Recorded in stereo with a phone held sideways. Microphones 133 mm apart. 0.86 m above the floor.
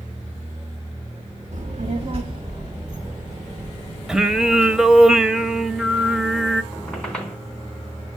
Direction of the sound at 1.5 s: 65° right (ahead or behind).